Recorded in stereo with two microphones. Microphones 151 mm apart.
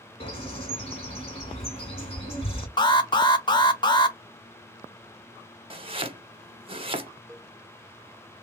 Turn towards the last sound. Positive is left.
turn(degrees=5)  # may be behind; listen again after turning